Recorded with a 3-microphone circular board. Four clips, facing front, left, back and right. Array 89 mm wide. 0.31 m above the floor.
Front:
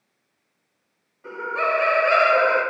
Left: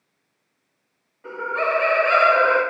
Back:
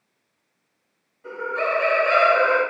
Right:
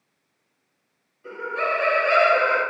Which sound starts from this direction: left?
Laughter, at 1.2 s.